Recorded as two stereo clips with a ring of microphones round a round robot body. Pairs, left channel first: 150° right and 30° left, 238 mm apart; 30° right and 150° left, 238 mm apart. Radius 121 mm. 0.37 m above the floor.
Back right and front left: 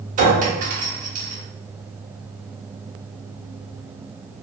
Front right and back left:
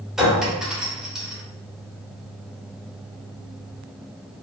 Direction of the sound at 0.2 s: 65° left.